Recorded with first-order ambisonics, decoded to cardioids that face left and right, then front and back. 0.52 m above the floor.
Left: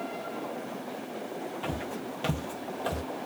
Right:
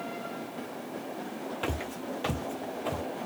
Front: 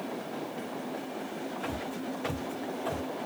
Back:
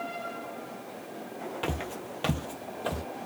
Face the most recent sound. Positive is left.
turn(degrees=125)